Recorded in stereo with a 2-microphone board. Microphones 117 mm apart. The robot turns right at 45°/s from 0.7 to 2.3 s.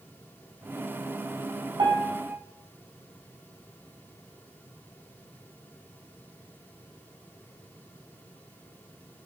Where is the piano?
45° right (ahead or behind), 2.5 m; by 2.3 s 25° right (ahead or behind), 2.5 m.